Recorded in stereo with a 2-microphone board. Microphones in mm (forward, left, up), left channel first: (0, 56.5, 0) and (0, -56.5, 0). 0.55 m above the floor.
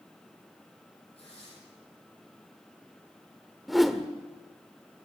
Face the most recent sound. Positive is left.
turn(degrees=0)  # may be behind; listen again after turning